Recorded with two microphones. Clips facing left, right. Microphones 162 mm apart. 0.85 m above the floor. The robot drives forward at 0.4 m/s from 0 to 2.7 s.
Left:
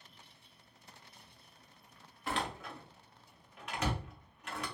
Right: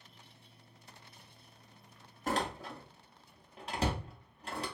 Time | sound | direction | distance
2.3 | a door slam | 45° right (ahead or behind) | 0.5 m